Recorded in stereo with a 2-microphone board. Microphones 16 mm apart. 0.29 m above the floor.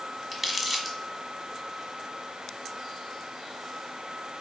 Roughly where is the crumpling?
Centre.